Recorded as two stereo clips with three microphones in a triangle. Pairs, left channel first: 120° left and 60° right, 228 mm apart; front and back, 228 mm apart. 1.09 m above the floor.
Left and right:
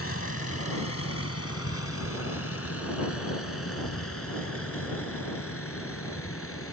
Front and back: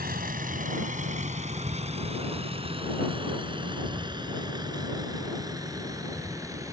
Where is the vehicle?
130° left; by 6.7 s 105° left.